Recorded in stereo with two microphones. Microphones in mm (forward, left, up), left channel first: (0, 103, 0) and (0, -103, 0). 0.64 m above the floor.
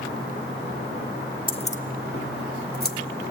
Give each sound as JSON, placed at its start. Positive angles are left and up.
{"t": 1.5, "sound": "keys jangling", "side_deg": 25, "distance_m": 0.7}